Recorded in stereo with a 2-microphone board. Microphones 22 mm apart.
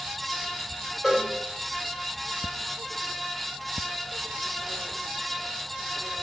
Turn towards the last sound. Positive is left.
turn(degrees=0)  # may be behind; listen again after turning